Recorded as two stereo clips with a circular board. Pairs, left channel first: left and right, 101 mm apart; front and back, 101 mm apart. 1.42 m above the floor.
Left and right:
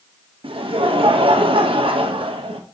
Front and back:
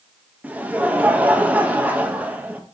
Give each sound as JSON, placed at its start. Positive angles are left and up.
{"t": 0.4, "sound": "laughter", "azimuth_deg": -105, "distance_m": 0.9}